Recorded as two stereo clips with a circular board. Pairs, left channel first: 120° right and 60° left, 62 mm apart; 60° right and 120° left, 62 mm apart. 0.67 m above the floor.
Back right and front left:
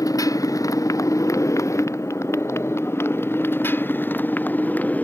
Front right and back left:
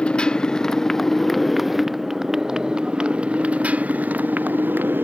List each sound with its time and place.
0.0 s a motorcycle: 135° right; by 5.0 s 175° left